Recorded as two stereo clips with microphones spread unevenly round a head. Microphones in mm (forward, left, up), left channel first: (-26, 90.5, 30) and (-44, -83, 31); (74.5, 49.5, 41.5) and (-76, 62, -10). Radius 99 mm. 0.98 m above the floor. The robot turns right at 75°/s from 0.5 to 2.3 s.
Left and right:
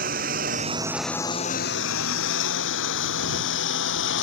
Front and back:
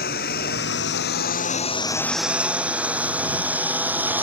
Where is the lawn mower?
50° right; by 4.2 s 95° left.